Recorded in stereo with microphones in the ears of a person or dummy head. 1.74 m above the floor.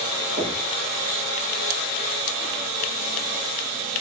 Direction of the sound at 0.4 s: 55° right (ahead or behind).